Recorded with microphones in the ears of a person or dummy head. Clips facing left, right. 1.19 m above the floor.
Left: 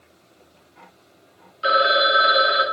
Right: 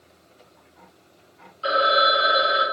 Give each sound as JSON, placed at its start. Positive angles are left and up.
{"t": 1.6, "sound": "a phone ringing", "side_deg": 25, "distance_m": 0.7}